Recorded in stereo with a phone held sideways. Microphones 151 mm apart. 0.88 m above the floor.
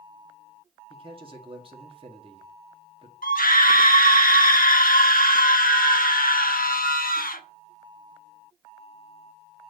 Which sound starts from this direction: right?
A man speaking, at 0.9 s.